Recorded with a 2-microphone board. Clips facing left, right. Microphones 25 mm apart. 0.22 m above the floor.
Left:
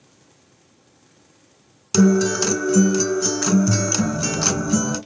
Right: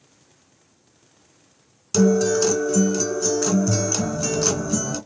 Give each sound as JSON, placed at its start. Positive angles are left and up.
{"t": 1.9, "sound": "a guitar", "side_deg": 25, "distance_m": 2.5}
{"t": 4.0, "sound": "a phone buzzing", "side_deg": 15, "distance_m": 1.4}